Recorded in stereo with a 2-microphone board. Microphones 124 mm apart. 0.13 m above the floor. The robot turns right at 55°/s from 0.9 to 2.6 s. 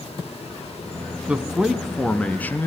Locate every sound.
1.3 s a man speaking: 10° right (ahead or behind), 1.6 m; by 2.7 s 15° left (ahead or behind), 1.6 m